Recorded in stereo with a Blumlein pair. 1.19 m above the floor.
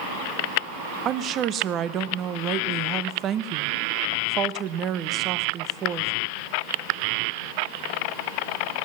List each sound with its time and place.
1.1 s a woman speaking: 30° right, 1.0 m